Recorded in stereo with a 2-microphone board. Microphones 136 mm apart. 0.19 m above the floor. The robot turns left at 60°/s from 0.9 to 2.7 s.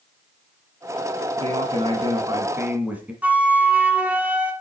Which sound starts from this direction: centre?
A flute, at 3.2 s.